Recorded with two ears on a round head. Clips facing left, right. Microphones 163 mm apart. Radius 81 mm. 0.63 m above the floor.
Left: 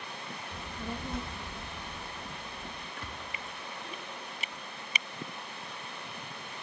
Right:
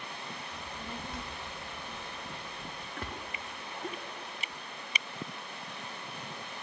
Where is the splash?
45° right (ahead or behind), 1.6 m.